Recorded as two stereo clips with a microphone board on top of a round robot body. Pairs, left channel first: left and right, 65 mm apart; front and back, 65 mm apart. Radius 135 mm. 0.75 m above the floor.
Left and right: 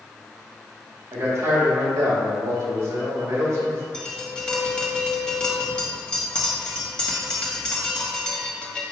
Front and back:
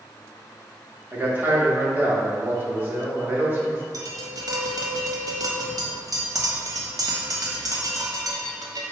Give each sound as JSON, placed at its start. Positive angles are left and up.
{"t": 1.1, "sound": "a man speaking", "azimuth_deg": -125, "distance_m": 2.0}
{"t": 3.9, "sound": "tapping", "azimuth_deg": 165, "distance_m": 1.6}